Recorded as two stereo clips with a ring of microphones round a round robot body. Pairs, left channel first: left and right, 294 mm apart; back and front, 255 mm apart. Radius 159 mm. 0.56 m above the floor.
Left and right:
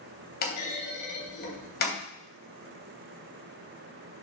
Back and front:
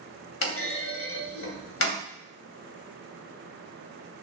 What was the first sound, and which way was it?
A clunk, 150° left.